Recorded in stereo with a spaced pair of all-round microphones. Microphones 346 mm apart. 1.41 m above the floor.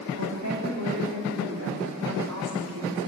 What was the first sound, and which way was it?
A woman speaking, 55° right (ahead or behind).